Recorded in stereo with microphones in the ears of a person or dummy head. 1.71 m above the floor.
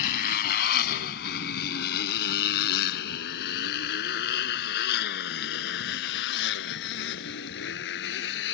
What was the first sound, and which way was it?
A motorcycle, 55° left (ahead or behind).